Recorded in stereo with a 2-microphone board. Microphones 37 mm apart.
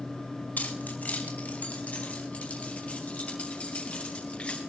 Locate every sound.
0.6 s keys jangling: 55° left (ahead or behind), 3 m; by 4.6 s 35° left (ahead or behind), 9 m